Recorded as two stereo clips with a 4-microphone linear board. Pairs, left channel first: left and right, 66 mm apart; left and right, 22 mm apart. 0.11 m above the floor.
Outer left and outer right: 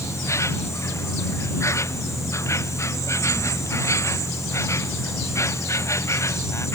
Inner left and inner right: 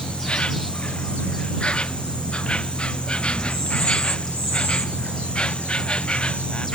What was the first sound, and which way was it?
An insect, 55° left (ahead or behind).